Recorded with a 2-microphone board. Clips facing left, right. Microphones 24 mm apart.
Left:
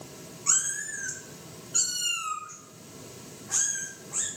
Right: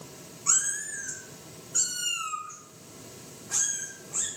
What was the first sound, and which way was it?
A cat meowing, 10° left (ahead or behind).